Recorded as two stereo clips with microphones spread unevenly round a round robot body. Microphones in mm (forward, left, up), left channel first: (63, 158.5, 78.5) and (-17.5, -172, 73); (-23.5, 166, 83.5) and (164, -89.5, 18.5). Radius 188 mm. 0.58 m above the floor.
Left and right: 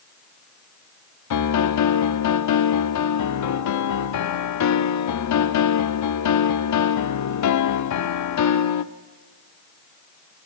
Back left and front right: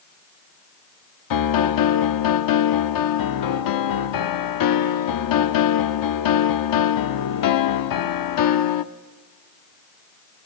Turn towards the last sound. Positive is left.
turn(degrees=110)